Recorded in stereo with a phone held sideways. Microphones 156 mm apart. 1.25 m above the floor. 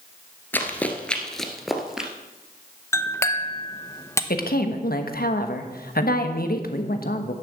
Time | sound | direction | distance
0.5 | running footsteps | 15° left (ahead or behind) | 1.2 m
2.9 | a clink | 20° left (ahead or behind) | 0.8 m
4.3 | a woman speaking | 75° left (ahead or behind) | 1.1 m